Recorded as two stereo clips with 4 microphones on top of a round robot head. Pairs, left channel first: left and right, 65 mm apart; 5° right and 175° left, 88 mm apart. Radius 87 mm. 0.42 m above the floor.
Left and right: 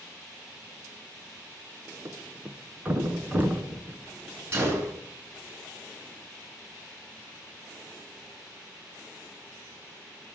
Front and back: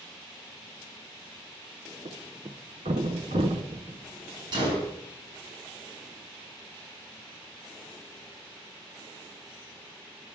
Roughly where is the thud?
Behind right.